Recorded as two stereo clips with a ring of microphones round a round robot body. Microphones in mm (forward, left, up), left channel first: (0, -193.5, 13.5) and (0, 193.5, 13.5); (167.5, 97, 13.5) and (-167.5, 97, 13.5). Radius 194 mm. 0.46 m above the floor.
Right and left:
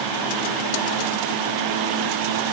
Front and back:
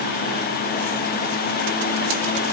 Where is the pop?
I don't hear a pop.